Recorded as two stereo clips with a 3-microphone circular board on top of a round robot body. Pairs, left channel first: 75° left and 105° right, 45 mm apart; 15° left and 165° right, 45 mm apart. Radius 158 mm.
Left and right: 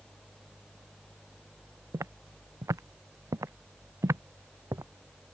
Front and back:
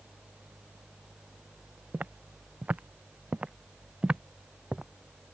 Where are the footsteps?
110° right; by 4.8 s 90° right.